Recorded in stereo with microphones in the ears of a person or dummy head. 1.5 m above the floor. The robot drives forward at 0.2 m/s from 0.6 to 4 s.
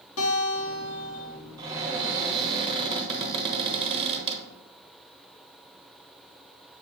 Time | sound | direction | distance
0.2 | a guitar | 85° left | 1.1 m
1.6 | a cupboard door | 20° right (ahead or behind) | 1.1 m